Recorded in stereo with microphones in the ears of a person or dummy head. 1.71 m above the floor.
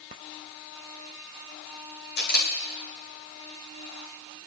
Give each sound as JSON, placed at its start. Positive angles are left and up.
{"t": 2.2, "sound": "a camera shutter", "side_deg": 60, "distance_m": 2.5}